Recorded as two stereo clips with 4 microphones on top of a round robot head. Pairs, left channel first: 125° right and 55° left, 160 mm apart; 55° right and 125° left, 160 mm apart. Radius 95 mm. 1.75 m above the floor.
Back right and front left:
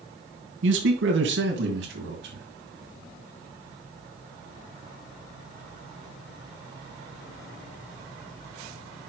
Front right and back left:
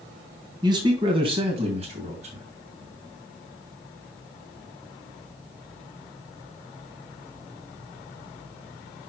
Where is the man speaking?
60° left, 1.5 m; by 2.5 s 75° left, 2.5 m.